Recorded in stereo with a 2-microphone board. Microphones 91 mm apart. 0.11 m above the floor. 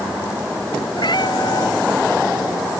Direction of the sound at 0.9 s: 60° left (ahead or behind).